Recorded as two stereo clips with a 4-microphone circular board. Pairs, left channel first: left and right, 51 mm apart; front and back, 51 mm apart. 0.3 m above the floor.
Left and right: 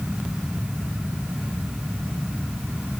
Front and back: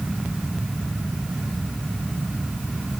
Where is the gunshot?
I don't hear a gunshot.